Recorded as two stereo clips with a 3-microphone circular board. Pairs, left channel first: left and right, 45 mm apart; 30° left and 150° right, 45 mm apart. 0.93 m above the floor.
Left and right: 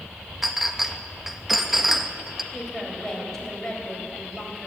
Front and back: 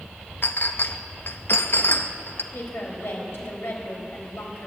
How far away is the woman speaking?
About 3.5 m.